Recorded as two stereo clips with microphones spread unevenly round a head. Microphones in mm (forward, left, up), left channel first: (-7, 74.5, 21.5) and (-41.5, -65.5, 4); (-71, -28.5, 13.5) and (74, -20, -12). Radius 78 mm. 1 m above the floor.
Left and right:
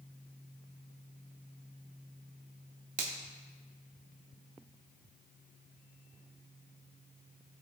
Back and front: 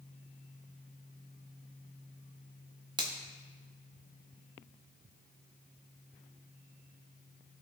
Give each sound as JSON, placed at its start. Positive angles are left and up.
{"t": 3.0, "sound": "a finger snap", "azimuth_deg": -55, "distance_m": 1.5}